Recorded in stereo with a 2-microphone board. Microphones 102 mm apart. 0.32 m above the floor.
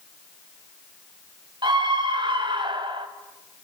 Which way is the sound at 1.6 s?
50° right (ahead or behind).